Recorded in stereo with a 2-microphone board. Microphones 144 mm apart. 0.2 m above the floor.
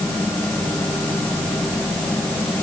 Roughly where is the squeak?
I don't hear a squeak.